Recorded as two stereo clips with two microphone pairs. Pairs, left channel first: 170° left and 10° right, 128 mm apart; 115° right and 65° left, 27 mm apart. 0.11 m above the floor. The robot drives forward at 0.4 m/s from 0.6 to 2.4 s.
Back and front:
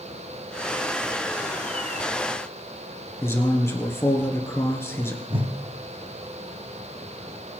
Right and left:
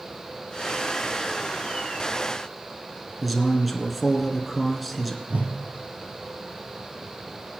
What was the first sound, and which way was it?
A man speaking, 155° left.